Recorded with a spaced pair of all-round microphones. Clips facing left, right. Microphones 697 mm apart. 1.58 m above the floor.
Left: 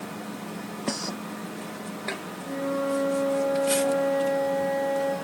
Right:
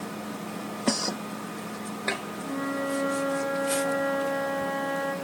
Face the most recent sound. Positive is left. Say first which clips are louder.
# left 3 dB
turn(degrees=10)  # may be behind; listen again after turning